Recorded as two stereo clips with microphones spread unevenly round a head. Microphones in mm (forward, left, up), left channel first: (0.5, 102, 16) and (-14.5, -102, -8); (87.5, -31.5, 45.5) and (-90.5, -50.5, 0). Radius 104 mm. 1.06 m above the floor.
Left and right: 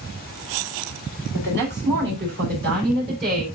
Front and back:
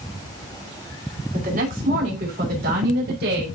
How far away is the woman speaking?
About 4.5 m.